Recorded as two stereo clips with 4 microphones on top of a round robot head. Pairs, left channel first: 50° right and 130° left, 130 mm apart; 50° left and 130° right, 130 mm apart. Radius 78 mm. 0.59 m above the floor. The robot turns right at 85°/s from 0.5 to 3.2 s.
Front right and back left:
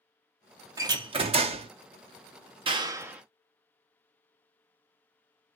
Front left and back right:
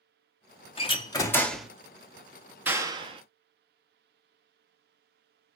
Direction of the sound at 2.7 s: 160° left.